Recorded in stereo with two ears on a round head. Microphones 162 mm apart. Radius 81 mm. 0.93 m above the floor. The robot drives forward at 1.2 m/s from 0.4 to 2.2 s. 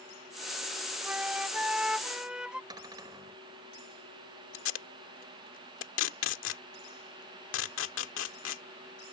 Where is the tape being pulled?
85° left.